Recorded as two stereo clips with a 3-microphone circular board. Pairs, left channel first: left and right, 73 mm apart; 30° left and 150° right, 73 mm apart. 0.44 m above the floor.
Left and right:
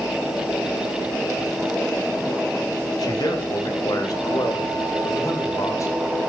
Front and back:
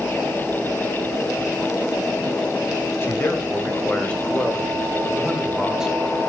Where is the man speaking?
85° left, 3 m; by 6.2 s 135° left, 3 m.